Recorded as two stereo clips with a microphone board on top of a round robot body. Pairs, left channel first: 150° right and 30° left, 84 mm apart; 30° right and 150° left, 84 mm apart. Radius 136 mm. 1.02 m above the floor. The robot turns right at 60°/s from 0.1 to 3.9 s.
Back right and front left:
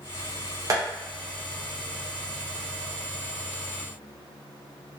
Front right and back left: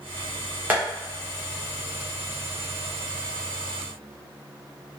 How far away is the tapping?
About 0.6 m.